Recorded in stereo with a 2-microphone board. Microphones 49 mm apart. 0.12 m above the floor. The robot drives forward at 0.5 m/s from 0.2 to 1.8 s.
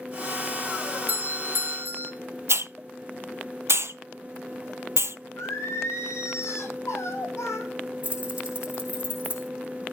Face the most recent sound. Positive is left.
turn(degrees=-25)  # may be behind; listen again after turning